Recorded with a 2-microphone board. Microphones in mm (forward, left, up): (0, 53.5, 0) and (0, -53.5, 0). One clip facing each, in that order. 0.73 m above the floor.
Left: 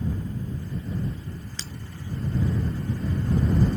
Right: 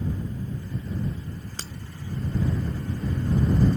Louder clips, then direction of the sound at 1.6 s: Right 1 dB; 50° right (ahead or behind).